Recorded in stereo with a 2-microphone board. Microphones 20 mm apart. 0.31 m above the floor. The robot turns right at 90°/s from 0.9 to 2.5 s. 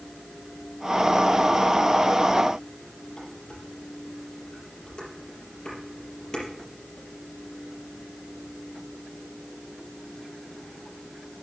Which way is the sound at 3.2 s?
45° left (ahead or behind).